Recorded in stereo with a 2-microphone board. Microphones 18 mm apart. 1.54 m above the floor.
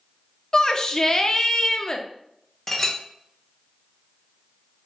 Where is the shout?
25° left (ahead or behind), 0.6 m.